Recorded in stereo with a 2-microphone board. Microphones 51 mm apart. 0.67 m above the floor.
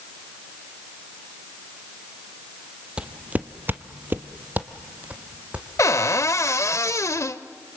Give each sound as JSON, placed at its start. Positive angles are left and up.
{"t": 3.0, "sound": "footsteps", "side_deg": -20, "distance_m": 1.0}
{"t": 5.8, "sound": "a cupboard door", "side_deg": 80, "distance_m": 0.8}